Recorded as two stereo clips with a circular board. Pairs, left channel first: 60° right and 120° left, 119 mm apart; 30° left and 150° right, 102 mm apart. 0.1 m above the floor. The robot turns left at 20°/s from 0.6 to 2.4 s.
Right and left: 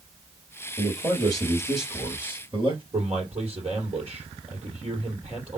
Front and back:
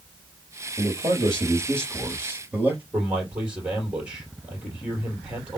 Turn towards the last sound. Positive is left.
turn(degrees=130)